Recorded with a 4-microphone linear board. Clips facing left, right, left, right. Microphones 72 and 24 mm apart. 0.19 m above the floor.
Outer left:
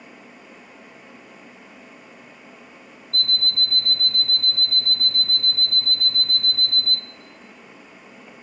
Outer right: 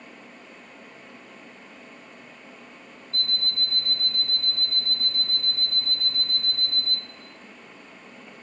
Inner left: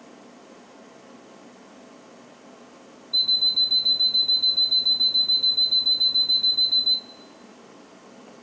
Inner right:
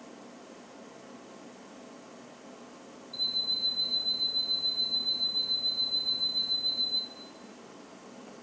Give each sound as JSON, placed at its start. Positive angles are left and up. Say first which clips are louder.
{"t": 3.1, "sound": "an alarm clock", "louder": "outer left 5 dB, inner left 10 dB", "side_deg": 55, "distance_m": 0.7}